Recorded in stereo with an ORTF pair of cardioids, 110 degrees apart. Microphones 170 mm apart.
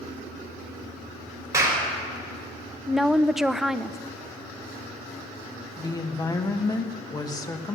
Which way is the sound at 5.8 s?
20° left.